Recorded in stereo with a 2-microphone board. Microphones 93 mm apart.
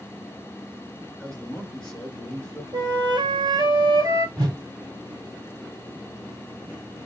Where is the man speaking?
10° left (ahead or behind), 1.2 m.